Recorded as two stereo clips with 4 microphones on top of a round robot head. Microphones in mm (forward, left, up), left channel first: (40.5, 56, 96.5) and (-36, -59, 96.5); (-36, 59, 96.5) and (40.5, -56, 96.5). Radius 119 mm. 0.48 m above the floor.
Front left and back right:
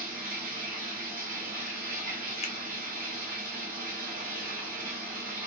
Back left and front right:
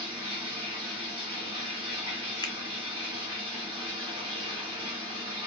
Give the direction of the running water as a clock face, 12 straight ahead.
4 o'clock.